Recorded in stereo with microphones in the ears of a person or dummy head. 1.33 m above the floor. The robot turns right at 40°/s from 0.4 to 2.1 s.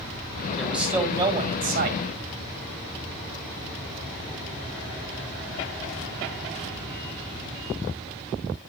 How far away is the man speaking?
About 1.7 m.